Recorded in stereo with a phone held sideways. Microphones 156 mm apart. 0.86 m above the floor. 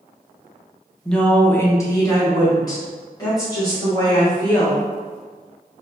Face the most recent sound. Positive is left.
turn(degrees=20)  # may be behind; listen again after turning